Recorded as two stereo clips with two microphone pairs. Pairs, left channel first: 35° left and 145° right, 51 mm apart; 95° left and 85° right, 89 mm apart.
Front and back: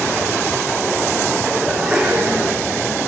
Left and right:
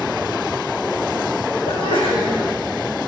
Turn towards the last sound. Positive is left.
turn(degrees=125)